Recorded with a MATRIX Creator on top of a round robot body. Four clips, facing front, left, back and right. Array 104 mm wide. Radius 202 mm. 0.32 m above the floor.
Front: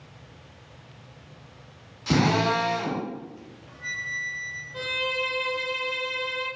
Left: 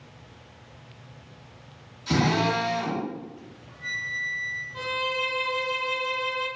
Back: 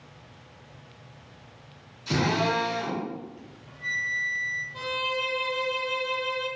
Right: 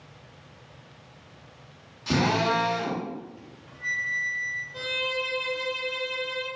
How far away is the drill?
About 1.3 m.